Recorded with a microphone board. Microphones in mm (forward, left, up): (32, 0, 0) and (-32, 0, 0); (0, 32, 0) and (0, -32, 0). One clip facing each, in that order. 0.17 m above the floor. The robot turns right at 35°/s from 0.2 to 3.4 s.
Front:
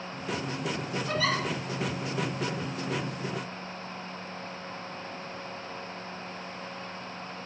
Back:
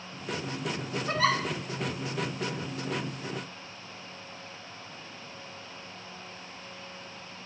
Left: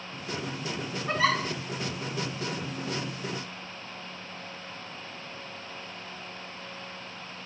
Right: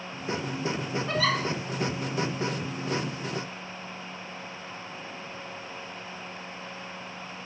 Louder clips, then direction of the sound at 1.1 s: Back 3 dB, left 2 dB; 145° left.